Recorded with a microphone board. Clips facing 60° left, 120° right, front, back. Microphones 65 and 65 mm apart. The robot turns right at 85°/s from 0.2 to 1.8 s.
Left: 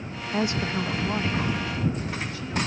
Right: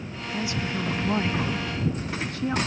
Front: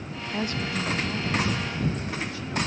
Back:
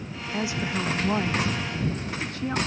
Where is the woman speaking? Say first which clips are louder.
Left 3 dB, back 1 dB; 85° left; by 2.6 s 150° right.